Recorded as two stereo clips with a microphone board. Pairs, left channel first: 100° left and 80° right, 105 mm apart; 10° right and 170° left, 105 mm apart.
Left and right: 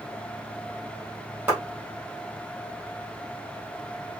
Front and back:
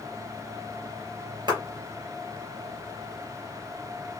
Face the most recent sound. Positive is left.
turn(degrees=-150)